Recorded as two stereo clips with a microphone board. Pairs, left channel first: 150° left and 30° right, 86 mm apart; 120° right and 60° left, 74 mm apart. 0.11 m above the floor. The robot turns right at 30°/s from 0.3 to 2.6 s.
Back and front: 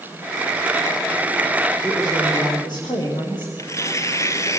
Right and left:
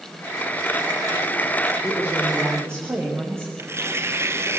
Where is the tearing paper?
105° left, 1.7 m.